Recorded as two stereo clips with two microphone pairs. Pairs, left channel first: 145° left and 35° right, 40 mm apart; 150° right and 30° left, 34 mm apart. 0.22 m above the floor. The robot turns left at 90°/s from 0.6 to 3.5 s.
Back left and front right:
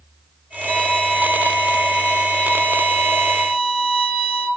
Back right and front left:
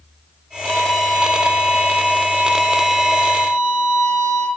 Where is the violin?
170° left, 1.7 m; by 4.5 s 85° right, 1.7 m.